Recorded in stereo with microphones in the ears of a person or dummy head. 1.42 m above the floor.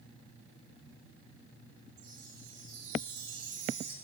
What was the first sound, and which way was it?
A chime, 65° right (ahead or behind).